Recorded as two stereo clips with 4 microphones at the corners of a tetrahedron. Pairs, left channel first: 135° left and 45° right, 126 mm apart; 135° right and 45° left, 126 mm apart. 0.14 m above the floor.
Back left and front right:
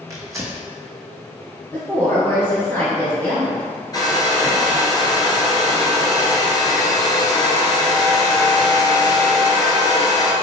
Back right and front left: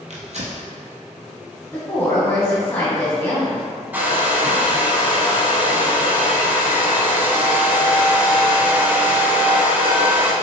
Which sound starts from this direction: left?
A hair dryer, at 3.9 s.